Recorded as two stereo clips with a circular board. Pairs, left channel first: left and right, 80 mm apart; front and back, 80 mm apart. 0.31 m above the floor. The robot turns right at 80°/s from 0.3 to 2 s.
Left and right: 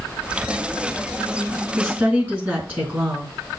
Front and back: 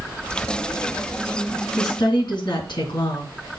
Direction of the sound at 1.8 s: 40° right.